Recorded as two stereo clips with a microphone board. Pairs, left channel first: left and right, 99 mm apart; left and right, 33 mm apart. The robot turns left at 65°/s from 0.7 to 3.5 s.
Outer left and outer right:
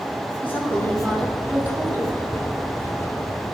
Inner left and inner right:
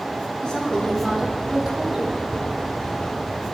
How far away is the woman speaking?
About 1.0 m.